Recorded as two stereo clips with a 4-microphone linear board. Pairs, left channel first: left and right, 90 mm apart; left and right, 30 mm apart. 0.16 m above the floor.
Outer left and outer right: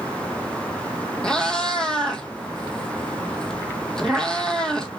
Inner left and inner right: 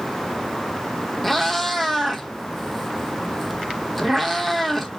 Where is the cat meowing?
10° left (ahead or behind), 0.6 m.